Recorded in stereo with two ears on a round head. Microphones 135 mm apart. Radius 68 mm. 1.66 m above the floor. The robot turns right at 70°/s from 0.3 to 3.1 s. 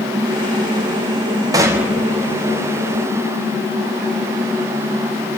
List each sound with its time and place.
1.5 s a gunshot: 35° right, 0.9 m; by 2.0 s 5° right, 0.9 m